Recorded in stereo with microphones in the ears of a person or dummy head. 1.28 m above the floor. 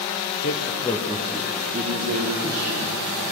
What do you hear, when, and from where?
0.4 s a man speaking: 50° left (ahead or behind), 1.1 m; by 3.2 s 55° right (ahead or behind), 3.5 m